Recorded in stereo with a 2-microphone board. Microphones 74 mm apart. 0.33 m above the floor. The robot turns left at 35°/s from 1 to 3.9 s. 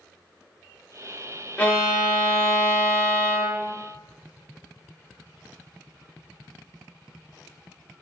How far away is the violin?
About 0.7 m.